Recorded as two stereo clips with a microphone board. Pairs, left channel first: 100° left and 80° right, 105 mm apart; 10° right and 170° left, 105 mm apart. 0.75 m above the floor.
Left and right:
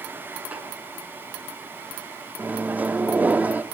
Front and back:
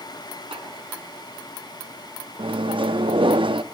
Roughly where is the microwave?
Behind right.